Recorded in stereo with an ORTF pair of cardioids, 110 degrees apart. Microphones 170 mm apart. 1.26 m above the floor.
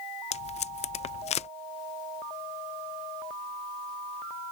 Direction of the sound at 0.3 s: 40° left.